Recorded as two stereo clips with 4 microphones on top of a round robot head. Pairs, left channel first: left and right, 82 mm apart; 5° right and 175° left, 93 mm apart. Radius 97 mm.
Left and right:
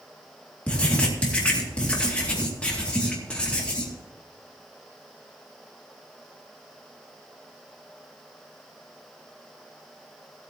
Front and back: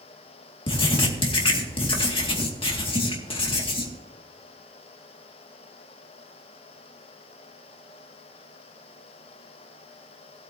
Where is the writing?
15° left, 2 m.